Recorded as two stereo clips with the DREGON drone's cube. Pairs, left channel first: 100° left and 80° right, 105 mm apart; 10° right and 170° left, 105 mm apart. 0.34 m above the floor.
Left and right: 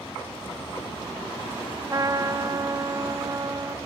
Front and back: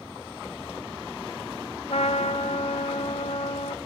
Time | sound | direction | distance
1.9 | a trumpet | 25° right | 0.7 m